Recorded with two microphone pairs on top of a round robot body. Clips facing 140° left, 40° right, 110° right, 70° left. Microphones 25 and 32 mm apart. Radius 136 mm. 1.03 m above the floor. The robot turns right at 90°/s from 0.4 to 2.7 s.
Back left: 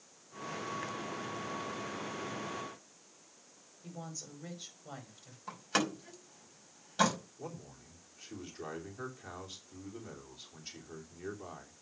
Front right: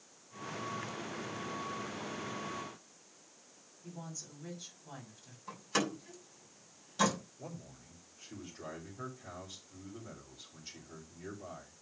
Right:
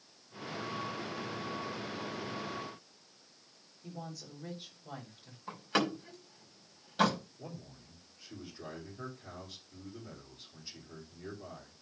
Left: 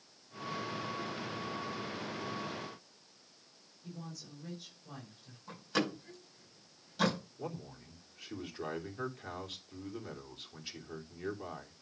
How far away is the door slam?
About 5 m.